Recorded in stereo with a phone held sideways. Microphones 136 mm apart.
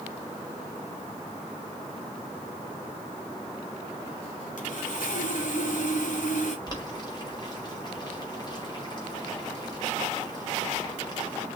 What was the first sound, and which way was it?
Sawing, 75° left (ahead or behind).